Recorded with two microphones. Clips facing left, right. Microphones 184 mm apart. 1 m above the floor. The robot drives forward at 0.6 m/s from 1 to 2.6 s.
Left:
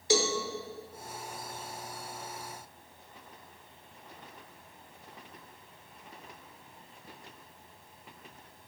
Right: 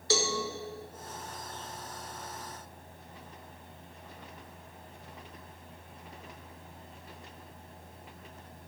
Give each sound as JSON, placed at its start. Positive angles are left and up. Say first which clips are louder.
{"t": 0.1, "sound": "a cowbell", "louder": "left 3 dB", "side_deg": 15, "distance_m": 1.3}